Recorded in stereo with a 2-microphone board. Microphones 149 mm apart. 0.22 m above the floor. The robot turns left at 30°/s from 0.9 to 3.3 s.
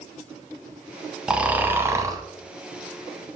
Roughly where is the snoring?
Centre.